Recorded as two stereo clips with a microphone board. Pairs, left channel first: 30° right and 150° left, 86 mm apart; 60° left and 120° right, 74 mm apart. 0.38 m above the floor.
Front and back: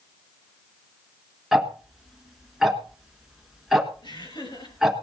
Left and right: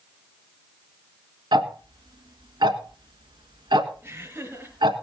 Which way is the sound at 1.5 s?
125° right.